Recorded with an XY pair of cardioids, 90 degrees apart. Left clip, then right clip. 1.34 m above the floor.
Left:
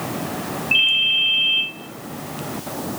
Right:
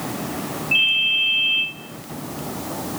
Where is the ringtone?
50° left, 2 m.